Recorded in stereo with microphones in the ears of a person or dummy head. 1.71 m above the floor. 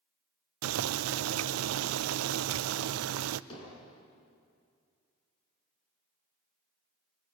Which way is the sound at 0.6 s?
80° right.